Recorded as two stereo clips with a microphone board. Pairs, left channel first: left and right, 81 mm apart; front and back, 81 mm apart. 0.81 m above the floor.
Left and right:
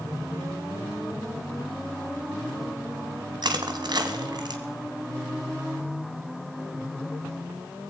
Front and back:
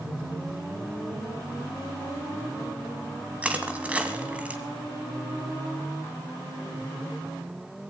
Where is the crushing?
110° right, 1.4 m.